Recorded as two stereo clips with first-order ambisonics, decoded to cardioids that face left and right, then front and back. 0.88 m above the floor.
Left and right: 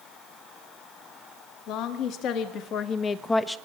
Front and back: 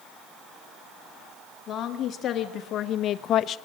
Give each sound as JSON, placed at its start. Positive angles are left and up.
{"t": 1.7, "sound": "a woman speaking", "azimuth_deg": 55, "distance_m": 1.9}